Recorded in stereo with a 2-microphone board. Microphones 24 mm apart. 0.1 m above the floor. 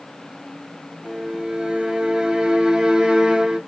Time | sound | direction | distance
1.0 | a violin | 30° right (ahead or behind) | 0.7 m